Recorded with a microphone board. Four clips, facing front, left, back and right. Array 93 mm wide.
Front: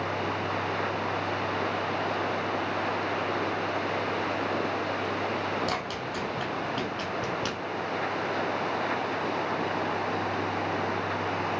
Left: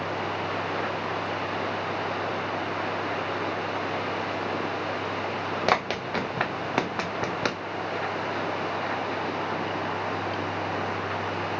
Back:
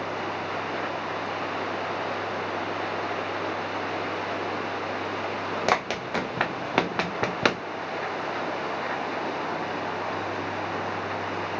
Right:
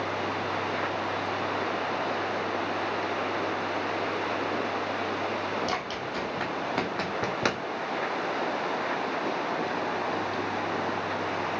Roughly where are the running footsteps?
Behind left.